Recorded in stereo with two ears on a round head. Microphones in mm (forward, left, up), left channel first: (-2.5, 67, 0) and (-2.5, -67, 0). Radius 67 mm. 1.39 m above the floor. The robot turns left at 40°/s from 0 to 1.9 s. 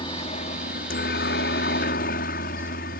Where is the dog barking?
No dog barking in this recording.